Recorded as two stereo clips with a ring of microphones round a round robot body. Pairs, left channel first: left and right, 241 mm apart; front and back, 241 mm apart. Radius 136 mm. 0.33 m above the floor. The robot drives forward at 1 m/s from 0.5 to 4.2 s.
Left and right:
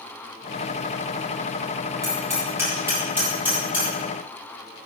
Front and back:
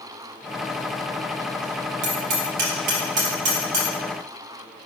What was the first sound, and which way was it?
Hammering, 170° right.